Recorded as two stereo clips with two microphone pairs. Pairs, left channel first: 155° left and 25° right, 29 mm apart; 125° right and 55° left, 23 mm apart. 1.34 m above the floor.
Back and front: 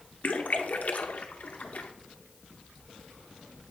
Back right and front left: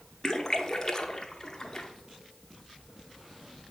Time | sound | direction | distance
0.2 | a splash | 175° left | 0.7 m